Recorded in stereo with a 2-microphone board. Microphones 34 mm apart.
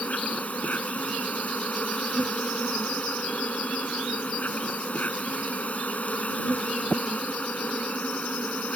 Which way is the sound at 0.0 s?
50° left (ahead or behind).